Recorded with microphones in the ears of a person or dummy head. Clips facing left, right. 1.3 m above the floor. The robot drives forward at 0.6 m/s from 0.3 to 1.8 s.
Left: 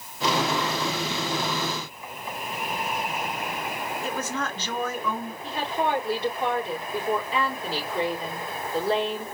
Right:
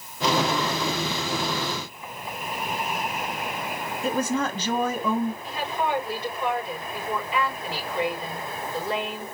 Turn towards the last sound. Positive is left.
turn(degrees=35)  # may be behind; listen again after turning